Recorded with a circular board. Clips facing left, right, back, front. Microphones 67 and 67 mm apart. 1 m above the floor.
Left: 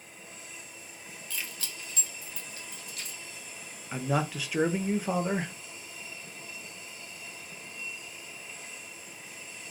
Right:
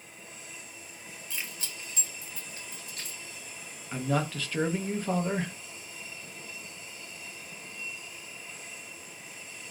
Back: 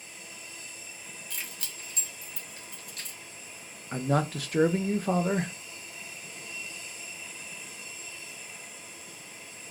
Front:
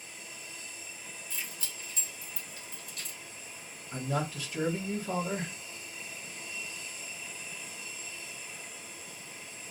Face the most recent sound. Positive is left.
turn(degrees=170)